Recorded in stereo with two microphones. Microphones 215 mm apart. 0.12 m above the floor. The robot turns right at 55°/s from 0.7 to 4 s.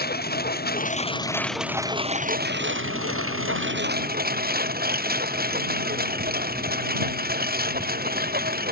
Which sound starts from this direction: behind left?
A lawn mower, at 0.0 s.